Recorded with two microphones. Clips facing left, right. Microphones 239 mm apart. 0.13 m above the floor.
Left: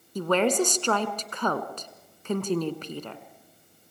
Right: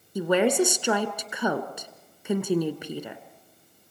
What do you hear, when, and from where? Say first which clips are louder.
0.1 s a woman speaking: right 2 dB; 10° right (ahead or behind), 1.6 m